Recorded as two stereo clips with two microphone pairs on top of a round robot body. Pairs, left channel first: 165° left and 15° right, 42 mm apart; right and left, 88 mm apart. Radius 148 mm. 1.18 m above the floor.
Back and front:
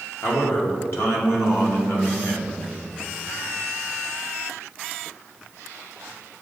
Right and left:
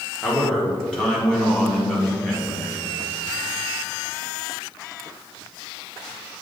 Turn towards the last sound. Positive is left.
turn(degrees=-175)